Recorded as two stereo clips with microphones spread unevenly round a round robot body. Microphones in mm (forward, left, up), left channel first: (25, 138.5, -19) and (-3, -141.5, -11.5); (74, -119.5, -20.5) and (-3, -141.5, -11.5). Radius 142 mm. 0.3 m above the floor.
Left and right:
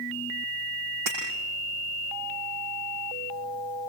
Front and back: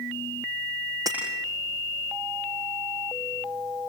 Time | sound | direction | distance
1.1 | breaking glass | 125° right | 6.5 m